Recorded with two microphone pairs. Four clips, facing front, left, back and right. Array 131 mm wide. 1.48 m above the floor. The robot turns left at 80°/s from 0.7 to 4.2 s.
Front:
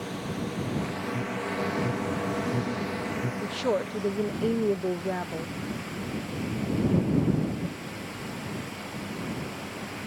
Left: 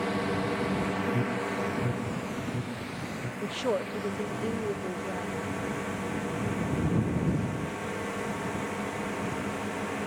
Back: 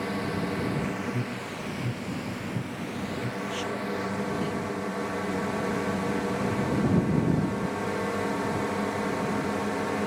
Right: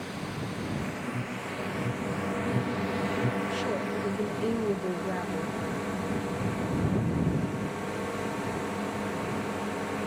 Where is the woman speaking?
55° left; by 5.5 s 10° right.